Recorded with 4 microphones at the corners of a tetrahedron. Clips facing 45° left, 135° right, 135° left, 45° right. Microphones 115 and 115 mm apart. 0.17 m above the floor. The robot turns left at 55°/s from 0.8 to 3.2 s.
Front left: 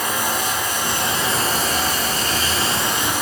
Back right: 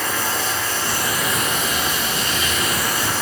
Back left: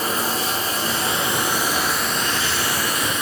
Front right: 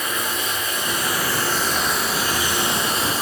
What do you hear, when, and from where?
0.0 s running water: 110° left, 1.1 m; by 3.2 s 20° right, 1.1 m